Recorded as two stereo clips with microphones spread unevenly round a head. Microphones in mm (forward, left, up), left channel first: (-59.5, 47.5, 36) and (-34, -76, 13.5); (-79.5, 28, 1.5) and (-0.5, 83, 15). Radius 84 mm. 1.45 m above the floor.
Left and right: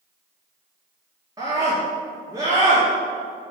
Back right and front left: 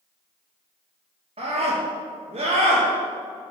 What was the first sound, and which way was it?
A scream, 15° right.